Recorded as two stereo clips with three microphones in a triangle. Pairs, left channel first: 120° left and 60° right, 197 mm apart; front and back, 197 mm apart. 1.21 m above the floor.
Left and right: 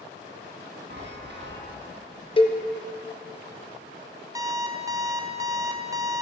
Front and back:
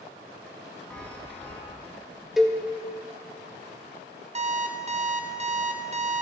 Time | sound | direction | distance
0.9 | a chime | 85° right | 1.1 m
2.4 | a cowbell | 90° left | 0.5 m
4.3 | an alarm clock | 130° right | 0.5 m